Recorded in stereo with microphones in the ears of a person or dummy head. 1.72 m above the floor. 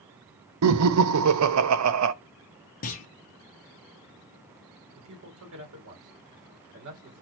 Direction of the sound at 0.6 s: 85° right.